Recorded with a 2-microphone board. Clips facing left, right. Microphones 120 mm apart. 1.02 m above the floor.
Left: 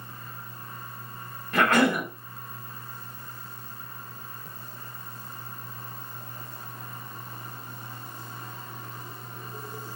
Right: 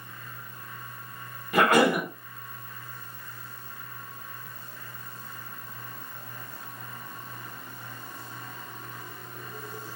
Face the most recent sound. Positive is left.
turn(degrees=-15)  # may be behind; listen again after turning